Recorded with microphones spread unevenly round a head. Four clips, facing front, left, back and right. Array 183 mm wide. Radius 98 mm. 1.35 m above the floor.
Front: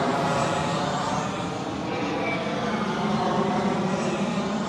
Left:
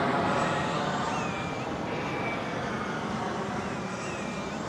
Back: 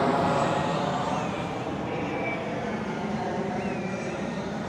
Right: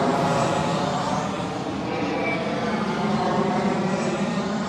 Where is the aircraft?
90° right; by 4.7 s 50° right.